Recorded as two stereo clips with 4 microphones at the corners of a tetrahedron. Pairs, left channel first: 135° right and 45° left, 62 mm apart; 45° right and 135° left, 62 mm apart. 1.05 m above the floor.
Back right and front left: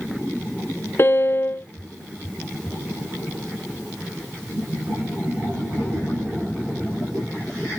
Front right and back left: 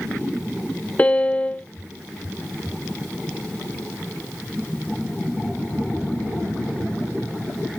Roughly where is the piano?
Right.